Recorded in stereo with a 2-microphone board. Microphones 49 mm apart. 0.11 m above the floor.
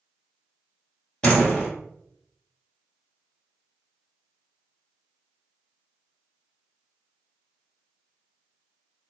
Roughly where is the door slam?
Left.